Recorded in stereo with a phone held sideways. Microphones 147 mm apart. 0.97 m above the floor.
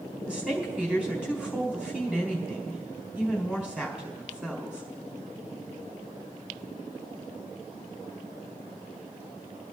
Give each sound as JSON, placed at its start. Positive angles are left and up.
{"t": 0.2, "sound": "a woman speaking", "side_deg": -10, "distance_m": 4.0}